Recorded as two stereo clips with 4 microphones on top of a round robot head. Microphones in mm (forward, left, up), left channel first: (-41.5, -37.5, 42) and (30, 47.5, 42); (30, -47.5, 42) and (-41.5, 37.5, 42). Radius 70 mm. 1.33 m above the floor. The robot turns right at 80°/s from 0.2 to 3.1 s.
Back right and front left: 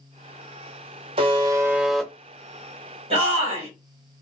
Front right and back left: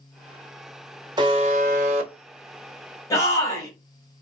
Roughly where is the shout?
Ahead.